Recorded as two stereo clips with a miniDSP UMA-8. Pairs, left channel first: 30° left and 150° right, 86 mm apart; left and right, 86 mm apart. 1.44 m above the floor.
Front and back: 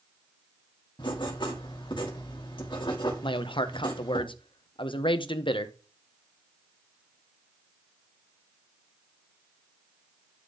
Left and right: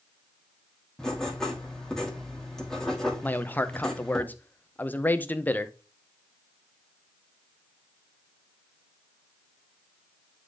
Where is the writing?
5° left, 2.5 m.